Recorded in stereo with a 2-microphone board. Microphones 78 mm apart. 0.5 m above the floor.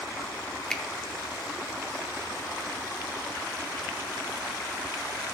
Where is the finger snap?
10° left (ahead or behind), 0.7 m.